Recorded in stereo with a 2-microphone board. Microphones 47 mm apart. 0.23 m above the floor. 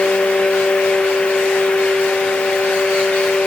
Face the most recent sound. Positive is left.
No sound to turn to.